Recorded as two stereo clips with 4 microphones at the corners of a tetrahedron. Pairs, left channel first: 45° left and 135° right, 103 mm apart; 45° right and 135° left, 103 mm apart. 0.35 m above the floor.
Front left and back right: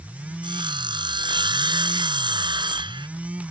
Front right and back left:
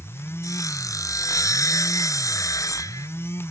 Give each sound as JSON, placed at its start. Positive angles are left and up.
{"t": 0.4, "sound": "sawing", "azimuth_deg": -100}